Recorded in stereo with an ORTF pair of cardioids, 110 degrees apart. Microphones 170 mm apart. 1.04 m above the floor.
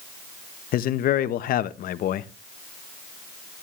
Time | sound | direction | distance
0.7 | a man speaking | 65° left | 1.0 m